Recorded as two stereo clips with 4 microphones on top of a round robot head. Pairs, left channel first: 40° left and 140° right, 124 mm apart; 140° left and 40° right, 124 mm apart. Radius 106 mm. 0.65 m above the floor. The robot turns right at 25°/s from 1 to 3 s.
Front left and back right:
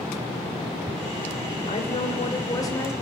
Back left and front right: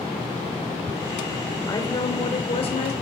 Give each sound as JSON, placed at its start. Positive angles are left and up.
{"t": 1.7, "sound": "a woman speaking", "azimuth_deg": 75, "distance_m": 2.5}